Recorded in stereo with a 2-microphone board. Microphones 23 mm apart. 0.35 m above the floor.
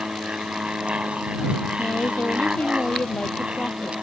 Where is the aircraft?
55° right (ahead or behind).